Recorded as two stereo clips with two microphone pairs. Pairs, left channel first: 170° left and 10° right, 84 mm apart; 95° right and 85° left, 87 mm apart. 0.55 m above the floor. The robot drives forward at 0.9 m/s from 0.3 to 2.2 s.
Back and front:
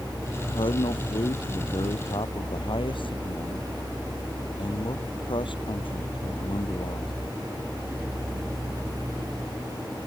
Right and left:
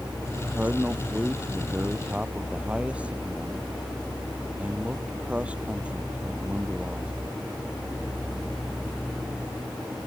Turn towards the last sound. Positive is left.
turn(degrees=160)